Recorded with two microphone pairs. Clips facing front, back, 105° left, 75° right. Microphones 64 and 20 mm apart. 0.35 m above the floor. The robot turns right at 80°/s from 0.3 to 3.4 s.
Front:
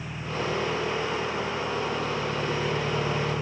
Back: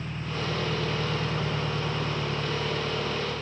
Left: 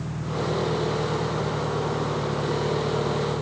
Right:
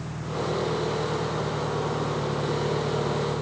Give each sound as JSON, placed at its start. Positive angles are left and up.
{"t": 0.0, "sound": "an engine running", "azimuth_deg": 95}